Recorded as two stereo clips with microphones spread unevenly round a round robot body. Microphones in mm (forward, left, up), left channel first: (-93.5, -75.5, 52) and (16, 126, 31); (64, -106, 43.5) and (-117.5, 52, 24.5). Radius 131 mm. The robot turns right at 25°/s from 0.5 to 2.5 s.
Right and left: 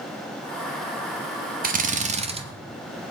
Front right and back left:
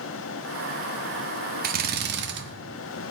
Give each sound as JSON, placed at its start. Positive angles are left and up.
{"t": 1.6, "sound": "a drill", "azimuth_deg": 100, "distance_m": 1.4}